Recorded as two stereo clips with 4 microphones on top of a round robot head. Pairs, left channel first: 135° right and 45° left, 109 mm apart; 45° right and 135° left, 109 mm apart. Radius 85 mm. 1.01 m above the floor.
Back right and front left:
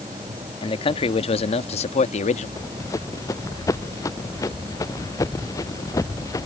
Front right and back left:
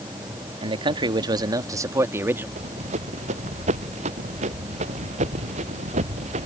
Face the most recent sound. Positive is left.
turn(degrees=160)